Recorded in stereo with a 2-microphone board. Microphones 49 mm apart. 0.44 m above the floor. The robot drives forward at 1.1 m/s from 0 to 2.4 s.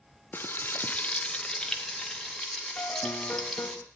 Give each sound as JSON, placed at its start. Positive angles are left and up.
{"t": 0.3, "sound": "frying", "side_deg": 40, "distance_m": 0.6}
{"t": 2.8, "sound": "a piano", "side_deg": 50, "distance_m": 0.6}